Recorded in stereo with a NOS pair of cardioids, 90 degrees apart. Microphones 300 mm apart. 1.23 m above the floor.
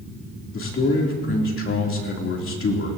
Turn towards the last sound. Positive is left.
turn(degrees=45)